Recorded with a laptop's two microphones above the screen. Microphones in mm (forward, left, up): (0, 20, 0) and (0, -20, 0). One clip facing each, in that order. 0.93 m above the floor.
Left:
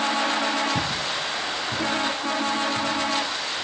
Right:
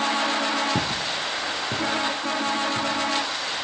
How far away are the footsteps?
About 3 m.